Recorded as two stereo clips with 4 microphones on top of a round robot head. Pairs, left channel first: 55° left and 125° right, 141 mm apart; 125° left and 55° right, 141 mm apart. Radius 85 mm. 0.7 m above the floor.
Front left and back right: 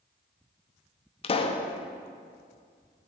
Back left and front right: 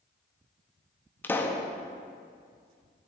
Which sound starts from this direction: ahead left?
A pop, at 1.2 s.